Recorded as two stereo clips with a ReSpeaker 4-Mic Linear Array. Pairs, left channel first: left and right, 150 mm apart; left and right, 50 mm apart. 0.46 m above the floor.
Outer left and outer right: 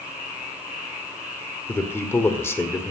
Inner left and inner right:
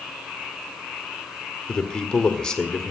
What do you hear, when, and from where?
1.7 s a man speaking: 15° left (ahead or behind), 1.7 m